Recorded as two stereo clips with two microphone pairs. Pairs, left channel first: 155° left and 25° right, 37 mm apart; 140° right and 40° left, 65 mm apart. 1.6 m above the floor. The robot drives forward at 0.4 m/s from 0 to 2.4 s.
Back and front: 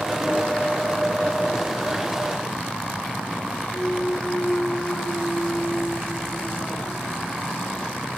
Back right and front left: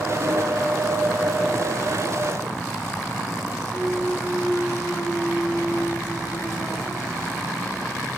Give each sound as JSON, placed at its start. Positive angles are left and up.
{"t": 3.7, "sound": "a clunk", "azimuth_deg": 155, "distance_m": 2.0}